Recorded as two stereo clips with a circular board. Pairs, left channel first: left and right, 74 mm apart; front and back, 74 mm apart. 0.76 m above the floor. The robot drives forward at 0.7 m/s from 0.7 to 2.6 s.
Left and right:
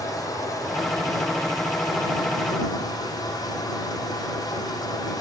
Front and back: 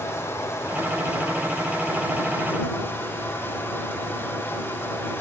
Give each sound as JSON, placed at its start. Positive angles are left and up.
{"t": 0.0, "sound": "running water", "azimuth_deg": 55, "distance_m": 9.5}